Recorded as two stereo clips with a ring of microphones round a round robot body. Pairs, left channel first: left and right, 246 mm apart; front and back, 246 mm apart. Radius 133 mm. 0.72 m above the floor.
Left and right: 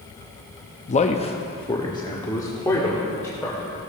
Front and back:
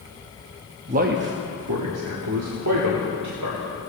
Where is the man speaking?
135° left, 0.6 m; by 3.8 s 170° left, 2 m.